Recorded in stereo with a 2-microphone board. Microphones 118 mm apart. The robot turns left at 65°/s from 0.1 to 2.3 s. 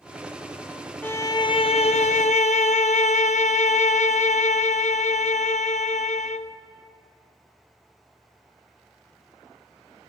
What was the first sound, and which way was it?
A violin, 165° left.